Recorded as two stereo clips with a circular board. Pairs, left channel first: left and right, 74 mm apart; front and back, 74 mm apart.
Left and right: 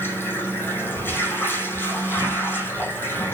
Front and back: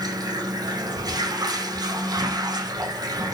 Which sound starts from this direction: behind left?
Running water, at 0.0 s.